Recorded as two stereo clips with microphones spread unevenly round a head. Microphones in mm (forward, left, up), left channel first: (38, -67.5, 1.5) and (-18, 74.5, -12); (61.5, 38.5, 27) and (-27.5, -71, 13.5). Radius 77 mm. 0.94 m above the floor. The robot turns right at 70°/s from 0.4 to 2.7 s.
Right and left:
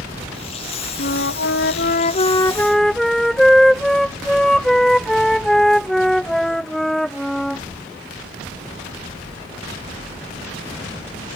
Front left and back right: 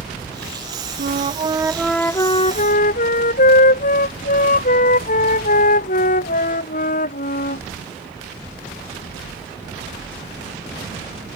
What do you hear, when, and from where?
1.0 s a flute: 100° right; by 7.6 s 20° left